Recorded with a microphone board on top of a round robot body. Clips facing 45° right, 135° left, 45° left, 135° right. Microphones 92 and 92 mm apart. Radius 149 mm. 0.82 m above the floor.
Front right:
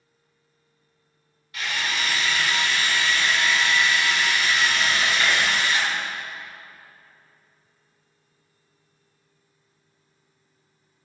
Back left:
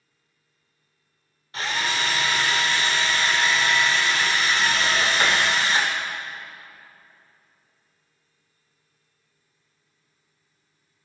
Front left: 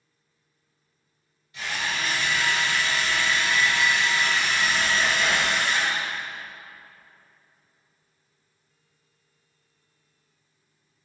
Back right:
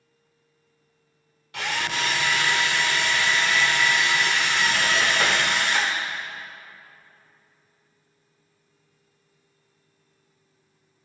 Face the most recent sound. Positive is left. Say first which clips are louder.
# back left 2 dB, back right 2 dB
turn(degrees=-165)